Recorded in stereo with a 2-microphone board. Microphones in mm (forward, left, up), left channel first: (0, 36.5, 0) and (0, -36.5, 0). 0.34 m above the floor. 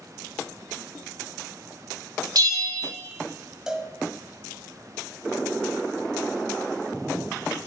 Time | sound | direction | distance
2.4 | a bell | 65° right (ahead or behind) | 1.0 m
3.7 | a cowbell | 10° right (ahead or behind) | 0.7 m